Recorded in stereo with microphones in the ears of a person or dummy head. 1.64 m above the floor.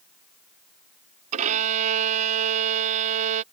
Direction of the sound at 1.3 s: 40° right (ahead or behind).